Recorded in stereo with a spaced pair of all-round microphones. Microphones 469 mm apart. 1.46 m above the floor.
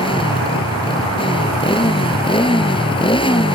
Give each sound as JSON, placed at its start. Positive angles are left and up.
{"t": 0.0, "sound": "a motorcycle", "side_deg": 10}